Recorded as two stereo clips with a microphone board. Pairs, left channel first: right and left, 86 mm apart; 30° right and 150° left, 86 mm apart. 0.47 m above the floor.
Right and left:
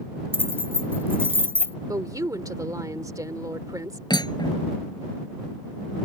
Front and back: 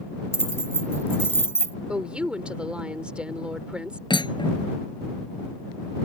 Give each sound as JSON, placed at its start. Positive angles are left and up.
{"t": 0.3, "sound": "keys jangling", "azimuth_deg": 30}
{"t": 1.9, "sound": "a woman speaking", "azimuth_deg": 75}
{"t": 4.1, "sound": "cutlery clinking", "azimuth_deg": -55}